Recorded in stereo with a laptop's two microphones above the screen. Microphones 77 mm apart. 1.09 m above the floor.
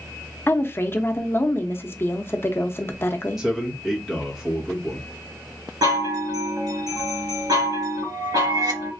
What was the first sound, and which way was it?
A woman speaking, 30° left (ahead or behind).